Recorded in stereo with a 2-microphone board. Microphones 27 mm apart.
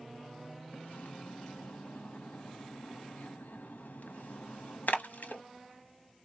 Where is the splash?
75° left (ahead or behind), 0.9 m.